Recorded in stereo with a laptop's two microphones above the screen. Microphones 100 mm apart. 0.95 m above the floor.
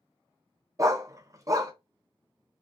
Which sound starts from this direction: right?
A dog barking, at 0.8 s.